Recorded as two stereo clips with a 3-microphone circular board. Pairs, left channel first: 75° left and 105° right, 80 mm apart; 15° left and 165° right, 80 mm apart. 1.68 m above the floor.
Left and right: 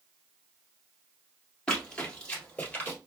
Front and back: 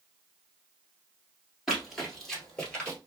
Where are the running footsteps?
125° left, 1.7 m; by 3.0 s 60° left, 1.8 m.